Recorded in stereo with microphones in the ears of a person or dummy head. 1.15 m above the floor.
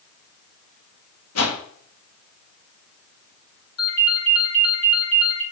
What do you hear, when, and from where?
1.4 s a whoosh: 75° left (ahead or behind), 1.9 m
3.8 s a ringtone: 80° left, 7 m